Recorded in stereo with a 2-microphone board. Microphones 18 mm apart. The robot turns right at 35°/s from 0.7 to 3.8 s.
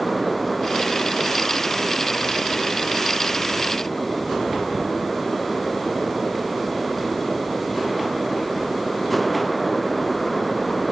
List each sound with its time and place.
Only background noise.